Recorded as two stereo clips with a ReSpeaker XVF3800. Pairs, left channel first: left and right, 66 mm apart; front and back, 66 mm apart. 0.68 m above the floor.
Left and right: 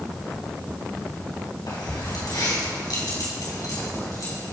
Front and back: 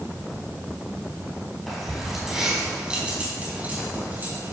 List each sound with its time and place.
1.7 s keys jangling: 85° left, 4.5 m; by 4.5 s 125° left, 5 m